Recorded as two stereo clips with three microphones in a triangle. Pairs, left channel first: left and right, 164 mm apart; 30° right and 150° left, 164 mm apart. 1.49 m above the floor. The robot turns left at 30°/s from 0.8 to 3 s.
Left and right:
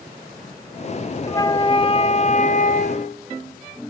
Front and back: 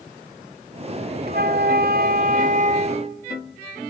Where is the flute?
160° left, 0.7 m; by 3.2 s 105° left, 0.7 m.